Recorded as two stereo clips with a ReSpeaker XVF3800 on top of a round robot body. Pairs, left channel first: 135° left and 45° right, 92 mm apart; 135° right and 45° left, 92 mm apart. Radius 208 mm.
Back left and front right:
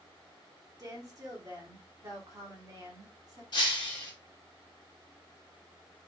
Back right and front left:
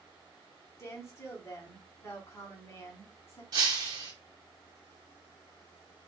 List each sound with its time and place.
0.8 s a woman speaking: 85° right, 1.9 m
3.5 s breaking glass: 95° left, 1.0 m